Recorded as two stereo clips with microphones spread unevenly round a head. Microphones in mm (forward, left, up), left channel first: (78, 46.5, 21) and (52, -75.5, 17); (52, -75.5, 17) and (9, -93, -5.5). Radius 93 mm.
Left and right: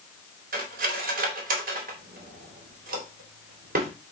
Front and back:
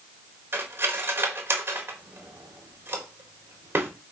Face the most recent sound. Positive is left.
turn(degrees=-110)